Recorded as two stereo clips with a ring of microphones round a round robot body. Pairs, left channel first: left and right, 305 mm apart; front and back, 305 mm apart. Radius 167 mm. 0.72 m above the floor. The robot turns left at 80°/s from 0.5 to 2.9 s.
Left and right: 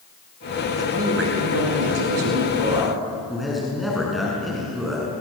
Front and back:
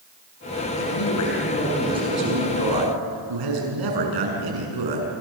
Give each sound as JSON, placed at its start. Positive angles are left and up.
{"t": 0.8, "sound": "a man speaking", "azimuth_deg": -10, "distance_m": 6.5}